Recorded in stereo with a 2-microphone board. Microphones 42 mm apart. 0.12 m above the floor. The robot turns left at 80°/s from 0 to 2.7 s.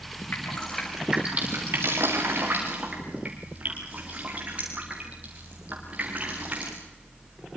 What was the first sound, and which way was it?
Dripping, 45° left (ahead or behind).